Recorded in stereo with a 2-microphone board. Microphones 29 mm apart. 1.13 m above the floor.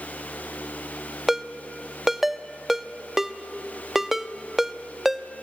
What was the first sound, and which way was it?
A ringtone, 10° right (ahead or behind).